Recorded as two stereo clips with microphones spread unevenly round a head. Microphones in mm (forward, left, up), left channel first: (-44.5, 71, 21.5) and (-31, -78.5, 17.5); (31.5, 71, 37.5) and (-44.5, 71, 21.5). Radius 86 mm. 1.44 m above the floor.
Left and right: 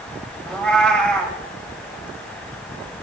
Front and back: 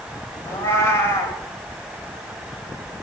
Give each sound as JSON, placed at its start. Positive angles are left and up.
{"t": 0.5, "sound": "a cat meowing", "azimuth_deg": 15, "distance_m": 1.6}